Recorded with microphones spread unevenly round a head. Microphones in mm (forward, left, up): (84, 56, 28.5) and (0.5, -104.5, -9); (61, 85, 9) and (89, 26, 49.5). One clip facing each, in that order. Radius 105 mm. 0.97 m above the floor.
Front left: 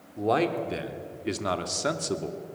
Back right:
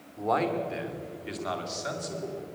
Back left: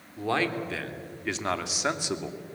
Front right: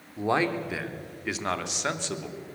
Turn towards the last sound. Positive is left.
turn(degrees=50)